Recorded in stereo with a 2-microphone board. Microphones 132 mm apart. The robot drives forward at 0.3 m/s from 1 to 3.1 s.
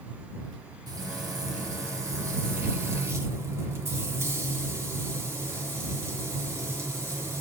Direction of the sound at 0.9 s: 30° right (ahead or behind).